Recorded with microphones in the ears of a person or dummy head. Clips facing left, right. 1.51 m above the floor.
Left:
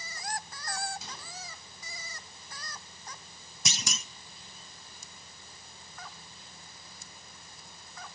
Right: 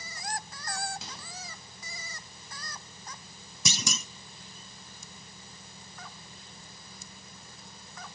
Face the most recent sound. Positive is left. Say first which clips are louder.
# right 5 dB
turn(degrees=-90)